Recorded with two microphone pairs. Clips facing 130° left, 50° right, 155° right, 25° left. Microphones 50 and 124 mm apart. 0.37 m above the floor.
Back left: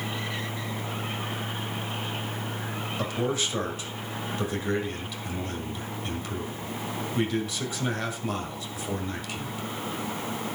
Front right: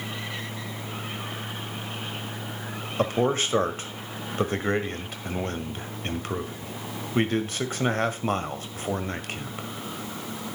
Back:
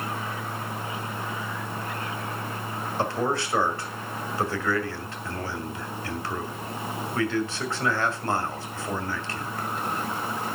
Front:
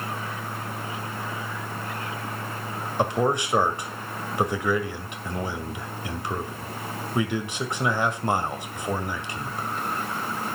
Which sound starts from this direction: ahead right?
A man speaking, at 3.0 s.